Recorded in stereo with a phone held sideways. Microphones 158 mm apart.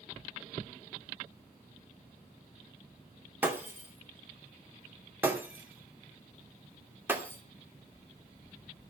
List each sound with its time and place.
3.4 s breaking glass: 15° right (ahead or behind), 2.5 m